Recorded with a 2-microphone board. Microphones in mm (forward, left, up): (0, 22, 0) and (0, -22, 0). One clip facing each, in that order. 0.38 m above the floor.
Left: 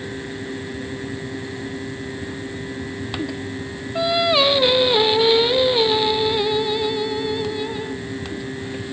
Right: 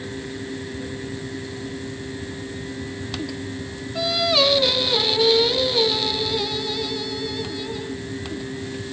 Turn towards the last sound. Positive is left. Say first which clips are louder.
# left 3 dB
turn(degrees=25)  # may be behind; listen again after turning